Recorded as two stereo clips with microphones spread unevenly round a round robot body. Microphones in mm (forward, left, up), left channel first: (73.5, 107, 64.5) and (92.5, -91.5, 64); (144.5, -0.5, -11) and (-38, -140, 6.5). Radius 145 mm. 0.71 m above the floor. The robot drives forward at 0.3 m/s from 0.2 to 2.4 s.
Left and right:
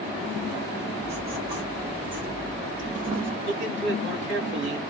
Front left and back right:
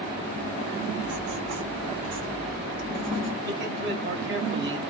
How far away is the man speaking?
About 1.6 m.